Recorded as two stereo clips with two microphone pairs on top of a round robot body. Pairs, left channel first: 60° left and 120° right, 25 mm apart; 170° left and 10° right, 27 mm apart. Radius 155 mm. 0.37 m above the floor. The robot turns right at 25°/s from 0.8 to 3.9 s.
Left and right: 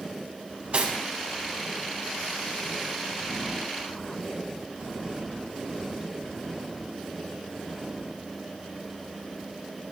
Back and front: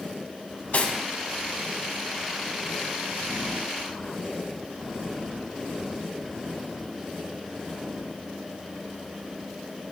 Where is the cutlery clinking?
160° right, 3 m; by 0.9 s 155° right, 3 m.